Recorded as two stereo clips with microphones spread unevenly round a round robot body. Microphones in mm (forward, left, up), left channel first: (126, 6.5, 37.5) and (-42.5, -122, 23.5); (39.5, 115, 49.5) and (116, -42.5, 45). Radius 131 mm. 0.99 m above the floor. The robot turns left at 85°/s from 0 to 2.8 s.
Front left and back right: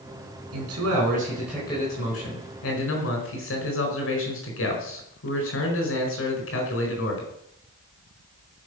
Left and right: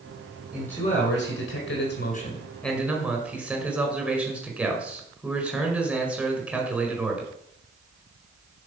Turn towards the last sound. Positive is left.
turn(degrees=20)